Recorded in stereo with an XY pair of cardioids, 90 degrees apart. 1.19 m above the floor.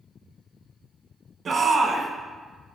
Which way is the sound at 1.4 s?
50° right.